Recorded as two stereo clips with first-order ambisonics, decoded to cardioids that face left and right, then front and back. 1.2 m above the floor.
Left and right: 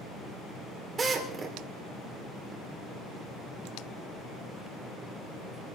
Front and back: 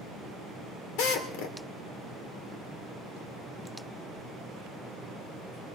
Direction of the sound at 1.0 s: 20° right.